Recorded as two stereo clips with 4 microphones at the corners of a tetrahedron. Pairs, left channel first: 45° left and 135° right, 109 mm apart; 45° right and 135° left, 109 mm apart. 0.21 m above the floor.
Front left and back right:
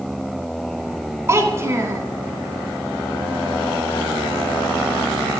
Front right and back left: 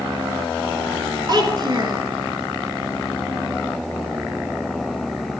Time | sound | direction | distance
1.3 | a child speaking | 170° left | 1.9 m